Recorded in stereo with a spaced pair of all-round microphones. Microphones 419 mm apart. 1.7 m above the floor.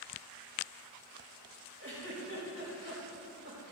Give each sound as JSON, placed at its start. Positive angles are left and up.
{"t": 1.8, "sound": "a giggle", "side_deg": -30, "distance_m": 3.0}